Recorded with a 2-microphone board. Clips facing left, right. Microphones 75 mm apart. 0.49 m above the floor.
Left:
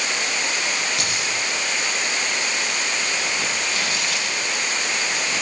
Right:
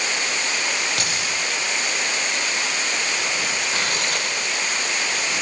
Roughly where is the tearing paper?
Right.